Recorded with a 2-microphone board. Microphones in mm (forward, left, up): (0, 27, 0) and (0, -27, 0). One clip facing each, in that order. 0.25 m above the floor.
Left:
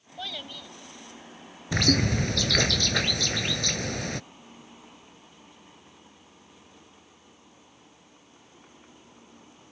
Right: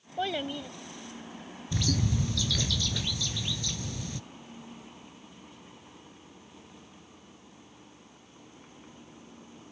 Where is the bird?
60° left (ahead or behind).